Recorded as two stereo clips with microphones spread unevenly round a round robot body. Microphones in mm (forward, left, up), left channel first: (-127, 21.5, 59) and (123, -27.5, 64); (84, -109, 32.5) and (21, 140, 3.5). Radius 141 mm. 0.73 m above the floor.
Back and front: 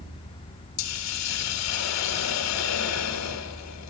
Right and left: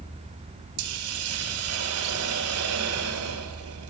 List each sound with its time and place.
0.8 s a hiss: 145° left, 1.5 m